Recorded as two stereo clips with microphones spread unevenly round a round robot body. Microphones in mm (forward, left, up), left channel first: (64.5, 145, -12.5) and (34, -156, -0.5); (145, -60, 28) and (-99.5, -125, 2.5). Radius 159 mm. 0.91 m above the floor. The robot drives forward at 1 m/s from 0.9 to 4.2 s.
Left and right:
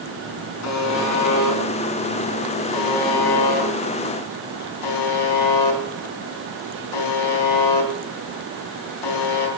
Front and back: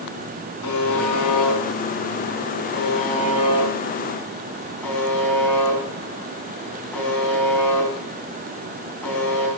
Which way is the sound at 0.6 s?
50° left.